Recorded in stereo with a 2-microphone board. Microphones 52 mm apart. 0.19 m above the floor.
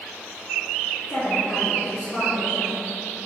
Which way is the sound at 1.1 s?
40° left (ahead or behind).